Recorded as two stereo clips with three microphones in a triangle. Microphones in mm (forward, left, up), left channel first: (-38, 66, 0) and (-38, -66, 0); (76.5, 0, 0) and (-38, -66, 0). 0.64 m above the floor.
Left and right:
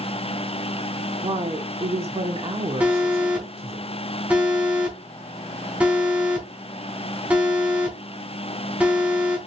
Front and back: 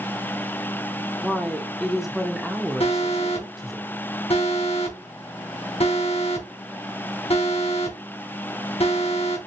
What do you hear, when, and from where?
1.2 s a woman speaking: 60° right, 1.6 m
2.8 s an alarm: 10° right, 3.5 m